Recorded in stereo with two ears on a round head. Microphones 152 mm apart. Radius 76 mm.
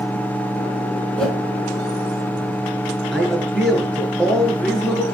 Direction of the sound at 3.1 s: Centre (ahead or behind).